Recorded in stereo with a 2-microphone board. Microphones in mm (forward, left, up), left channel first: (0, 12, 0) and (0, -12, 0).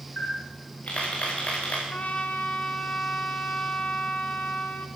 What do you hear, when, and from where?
0.2 s a camera shutter: 60° left (ahead or behind), 9 m
1.9 s a trumpet: 65° left (ahead or behind), 3 m